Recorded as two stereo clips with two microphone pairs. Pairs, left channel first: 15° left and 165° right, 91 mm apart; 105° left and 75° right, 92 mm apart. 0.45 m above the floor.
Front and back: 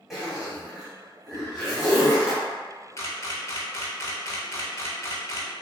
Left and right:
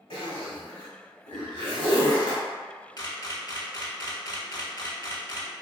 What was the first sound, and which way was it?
A zipper, 110° left.